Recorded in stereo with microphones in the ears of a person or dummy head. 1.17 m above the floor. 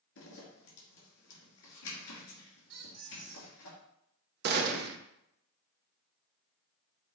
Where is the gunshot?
50° right (ahead or behind), 0.6 m.